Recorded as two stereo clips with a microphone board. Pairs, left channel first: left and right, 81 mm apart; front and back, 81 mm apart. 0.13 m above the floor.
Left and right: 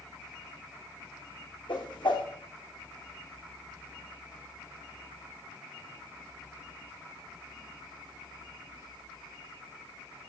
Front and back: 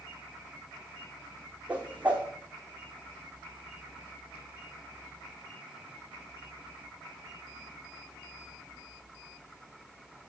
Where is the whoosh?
105° left, 2.5 m.